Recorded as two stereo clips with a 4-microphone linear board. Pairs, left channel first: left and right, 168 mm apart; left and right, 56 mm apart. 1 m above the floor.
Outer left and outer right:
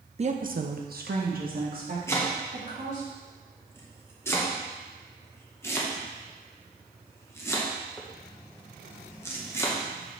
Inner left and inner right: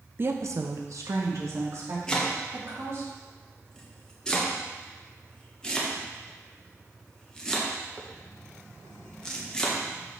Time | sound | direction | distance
0.2 | a woman speaking | 40° right (ahead or behind) | 0.6 m
2.1 | chopping | 15° left (ahead or behind) | 1.0 m